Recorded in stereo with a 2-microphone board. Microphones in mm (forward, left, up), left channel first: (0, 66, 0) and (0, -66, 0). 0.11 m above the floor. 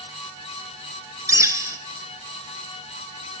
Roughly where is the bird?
Right.